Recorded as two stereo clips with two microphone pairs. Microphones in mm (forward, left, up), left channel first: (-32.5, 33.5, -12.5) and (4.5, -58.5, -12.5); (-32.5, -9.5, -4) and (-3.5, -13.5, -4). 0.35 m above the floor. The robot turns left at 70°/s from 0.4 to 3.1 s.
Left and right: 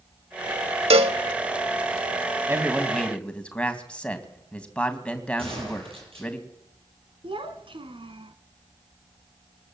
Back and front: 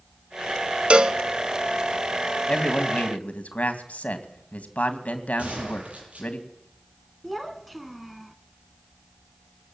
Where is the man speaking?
125° right, 2.5 m; by 6.4 s 170° right, 2.5 m.